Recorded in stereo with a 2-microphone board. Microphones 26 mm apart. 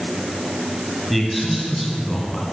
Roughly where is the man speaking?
Centre.